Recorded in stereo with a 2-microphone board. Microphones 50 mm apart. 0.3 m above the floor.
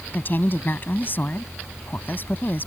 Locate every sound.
0.1 s a woman speaking: 40° left (ahead or behind)